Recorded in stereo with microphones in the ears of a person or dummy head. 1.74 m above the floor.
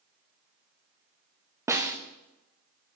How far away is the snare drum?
About 0.6 m.